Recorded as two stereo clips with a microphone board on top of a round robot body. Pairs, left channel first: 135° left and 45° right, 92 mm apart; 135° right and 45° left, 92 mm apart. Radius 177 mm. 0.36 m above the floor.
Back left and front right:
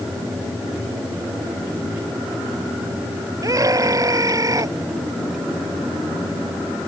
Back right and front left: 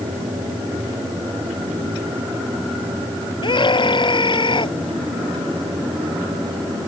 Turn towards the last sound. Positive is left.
turn(degrees=-100)